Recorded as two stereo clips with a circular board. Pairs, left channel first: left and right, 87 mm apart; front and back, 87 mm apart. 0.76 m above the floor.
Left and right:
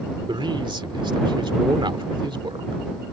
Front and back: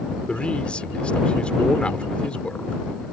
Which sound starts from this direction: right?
A man speaking, at 0.3 s.